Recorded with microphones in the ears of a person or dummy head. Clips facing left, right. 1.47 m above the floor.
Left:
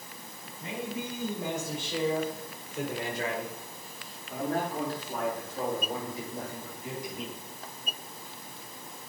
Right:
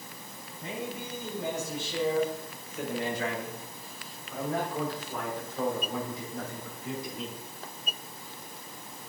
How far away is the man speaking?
About 5.5 m.